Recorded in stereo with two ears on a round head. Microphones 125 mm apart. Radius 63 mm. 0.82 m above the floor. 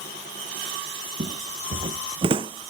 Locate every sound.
1.2 s footsteps: 50° right (ahead or behind); by 2.7 s 35° right (ahead or behind)